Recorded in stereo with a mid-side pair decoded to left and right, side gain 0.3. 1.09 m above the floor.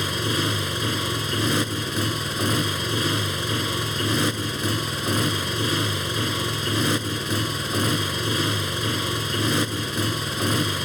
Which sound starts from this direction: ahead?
A motorcycle, at 0.0 s.